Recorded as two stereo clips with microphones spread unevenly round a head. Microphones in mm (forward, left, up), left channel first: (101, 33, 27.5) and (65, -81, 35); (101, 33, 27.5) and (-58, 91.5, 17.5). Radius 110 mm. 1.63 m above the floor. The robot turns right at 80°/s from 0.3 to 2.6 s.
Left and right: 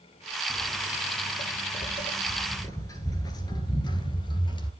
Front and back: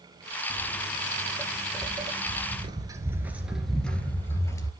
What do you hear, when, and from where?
0.5 s footsteps: 5° left, 2.5 m; by 4.7 s 35° left, 2 m